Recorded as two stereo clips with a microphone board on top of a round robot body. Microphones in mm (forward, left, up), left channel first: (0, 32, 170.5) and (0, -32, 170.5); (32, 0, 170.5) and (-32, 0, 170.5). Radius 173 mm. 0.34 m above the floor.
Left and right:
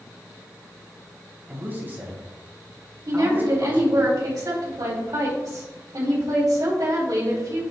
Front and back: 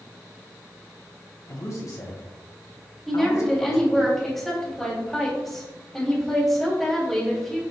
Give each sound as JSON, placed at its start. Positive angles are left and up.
{"t": 1.5, "sound": "a man speaking", "azimuth_deg": -30, "distance_m": 2.5}
{"t": 3.1, "sound": "a woman speaking", "azimuth_deg": -85, "distance_m": 3.5}